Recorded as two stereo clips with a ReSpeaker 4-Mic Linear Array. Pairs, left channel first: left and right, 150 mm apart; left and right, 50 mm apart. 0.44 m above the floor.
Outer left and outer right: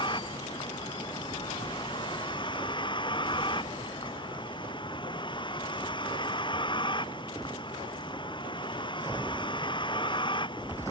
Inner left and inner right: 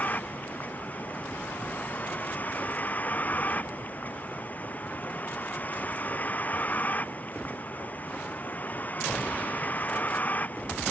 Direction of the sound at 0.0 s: 35° left (ahead or behind).